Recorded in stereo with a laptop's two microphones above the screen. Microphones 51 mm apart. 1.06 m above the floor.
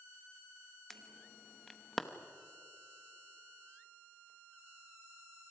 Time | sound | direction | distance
0.9 | an alarm | 5° left (ahead or behind) | 1.0 m